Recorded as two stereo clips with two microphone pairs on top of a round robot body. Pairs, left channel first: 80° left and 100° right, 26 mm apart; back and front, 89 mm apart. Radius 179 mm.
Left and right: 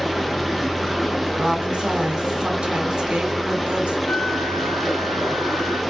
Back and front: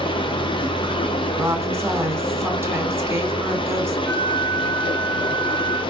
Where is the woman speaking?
50° right, 1.6 m.